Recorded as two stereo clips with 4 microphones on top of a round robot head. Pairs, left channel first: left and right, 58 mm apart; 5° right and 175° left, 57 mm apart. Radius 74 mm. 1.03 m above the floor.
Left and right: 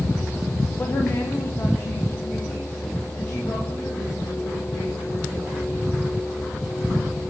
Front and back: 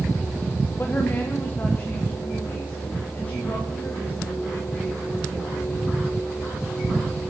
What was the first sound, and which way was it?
A woman speaking, 40° left.